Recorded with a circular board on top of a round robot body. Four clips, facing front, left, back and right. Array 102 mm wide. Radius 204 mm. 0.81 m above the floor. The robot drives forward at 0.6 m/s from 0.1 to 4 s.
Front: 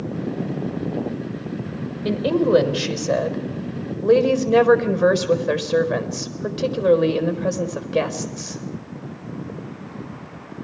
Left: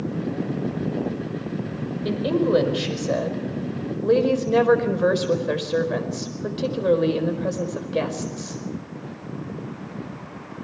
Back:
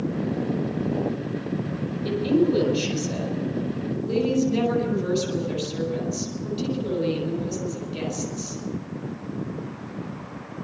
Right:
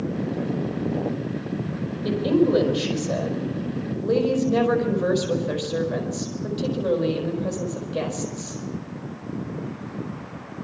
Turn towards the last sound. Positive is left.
turn(degrees=20)